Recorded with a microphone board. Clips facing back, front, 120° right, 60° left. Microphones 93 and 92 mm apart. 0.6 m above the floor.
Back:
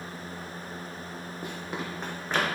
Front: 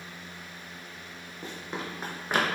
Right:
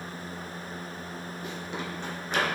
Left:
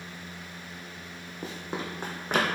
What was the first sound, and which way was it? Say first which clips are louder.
Running footsteps: even, left 3 dB; 110° left.